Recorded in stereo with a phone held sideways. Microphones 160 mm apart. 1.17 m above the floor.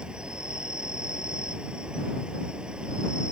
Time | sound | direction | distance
0.0 | an insect | 5° right (ahead or behind) | ?